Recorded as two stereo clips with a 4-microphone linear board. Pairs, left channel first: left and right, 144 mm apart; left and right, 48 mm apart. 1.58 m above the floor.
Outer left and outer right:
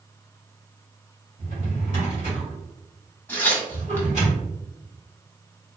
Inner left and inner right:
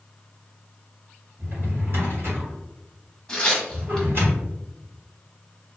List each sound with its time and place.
1.4 s a drawer: 55° right (ahead or behind), 1.9 m
3.3 s tearing paper: 15° left (ahead or behind), 1.3 m